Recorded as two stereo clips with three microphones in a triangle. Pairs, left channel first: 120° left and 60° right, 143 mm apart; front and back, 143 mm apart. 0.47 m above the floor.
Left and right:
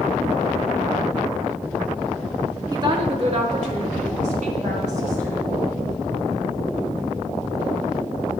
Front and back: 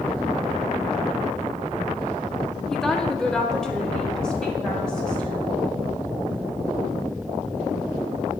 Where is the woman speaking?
85° right, 0.7 m.